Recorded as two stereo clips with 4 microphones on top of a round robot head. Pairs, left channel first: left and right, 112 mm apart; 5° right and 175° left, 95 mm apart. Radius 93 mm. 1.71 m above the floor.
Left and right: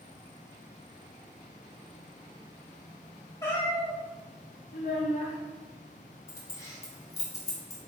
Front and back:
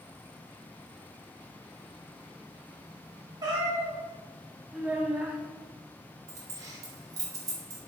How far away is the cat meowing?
About 1.6 m.